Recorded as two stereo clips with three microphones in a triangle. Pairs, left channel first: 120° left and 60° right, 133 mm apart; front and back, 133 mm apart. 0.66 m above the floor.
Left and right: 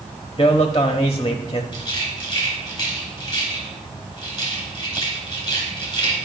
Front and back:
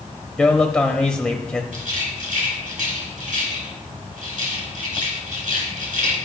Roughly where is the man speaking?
Left.